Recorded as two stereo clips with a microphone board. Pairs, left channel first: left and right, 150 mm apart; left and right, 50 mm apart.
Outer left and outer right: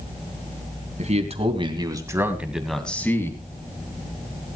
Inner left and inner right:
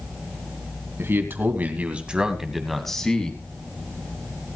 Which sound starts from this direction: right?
A man speaking, at 1.0 s.